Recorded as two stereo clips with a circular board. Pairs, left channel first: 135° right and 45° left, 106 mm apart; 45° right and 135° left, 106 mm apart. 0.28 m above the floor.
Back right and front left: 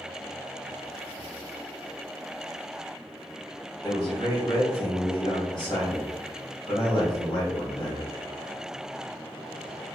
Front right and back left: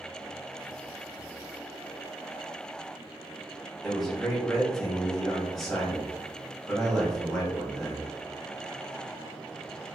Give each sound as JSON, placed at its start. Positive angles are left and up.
{"t": 3.8, "sound": "a man speaking", "azimuth_deg": -135, "distance_m": 1.3}